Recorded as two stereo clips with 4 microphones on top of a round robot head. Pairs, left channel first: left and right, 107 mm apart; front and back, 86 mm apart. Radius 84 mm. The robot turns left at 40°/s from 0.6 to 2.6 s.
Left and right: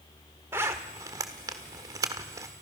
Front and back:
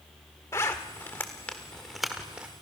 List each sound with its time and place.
0.5 s a zipper: 35° right, 1.3 m; by 2.5 s 110° right, 1.3 m